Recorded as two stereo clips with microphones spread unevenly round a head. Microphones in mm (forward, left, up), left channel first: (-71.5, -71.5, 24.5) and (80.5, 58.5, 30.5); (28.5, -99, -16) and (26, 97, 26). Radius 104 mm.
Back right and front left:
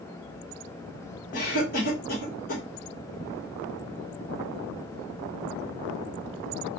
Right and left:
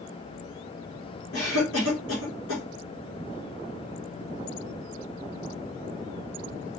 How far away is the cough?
About 1.7 m.